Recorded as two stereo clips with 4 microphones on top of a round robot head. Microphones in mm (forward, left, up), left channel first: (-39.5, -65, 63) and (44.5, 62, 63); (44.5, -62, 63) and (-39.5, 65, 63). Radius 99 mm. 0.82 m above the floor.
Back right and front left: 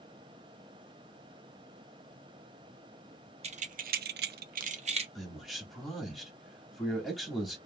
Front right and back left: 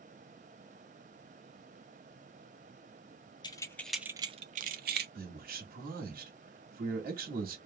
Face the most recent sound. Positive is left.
turn(degrees=145)